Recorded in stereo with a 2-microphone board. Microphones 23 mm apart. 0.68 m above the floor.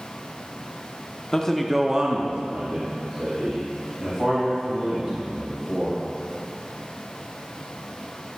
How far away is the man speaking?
About 1.0 m.